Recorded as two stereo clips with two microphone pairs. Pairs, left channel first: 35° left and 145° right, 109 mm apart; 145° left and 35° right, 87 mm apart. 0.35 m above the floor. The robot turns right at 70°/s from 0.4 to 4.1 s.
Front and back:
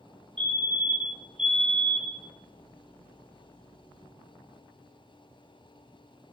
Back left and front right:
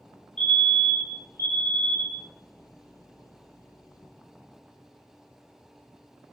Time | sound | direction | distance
0.4 | a fire alarm | 135° right | 4 m